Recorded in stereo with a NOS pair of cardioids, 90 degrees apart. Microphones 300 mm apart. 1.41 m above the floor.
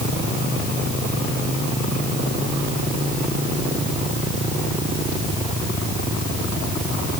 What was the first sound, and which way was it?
Only background noise.